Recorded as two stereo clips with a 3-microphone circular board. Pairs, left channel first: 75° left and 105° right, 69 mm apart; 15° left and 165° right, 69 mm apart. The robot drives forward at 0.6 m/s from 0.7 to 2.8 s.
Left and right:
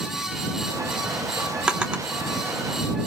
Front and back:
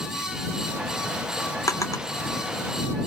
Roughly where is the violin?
I don't hear a violin.